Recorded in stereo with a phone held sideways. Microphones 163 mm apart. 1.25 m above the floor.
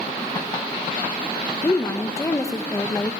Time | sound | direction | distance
1.6 | a woman speaking | 20° left (ahead or behind) | 1.4 m